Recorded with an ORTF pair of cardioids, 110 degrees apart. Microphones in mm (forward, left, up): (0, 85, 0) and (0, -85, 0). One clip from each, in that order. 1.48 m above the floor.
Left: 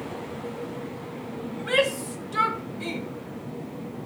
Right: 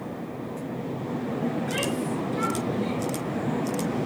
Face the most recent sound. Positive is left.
turn(degrees=80)